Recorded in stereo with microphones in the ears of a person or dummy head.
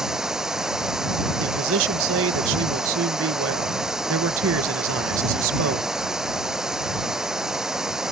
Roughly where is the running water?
Centre.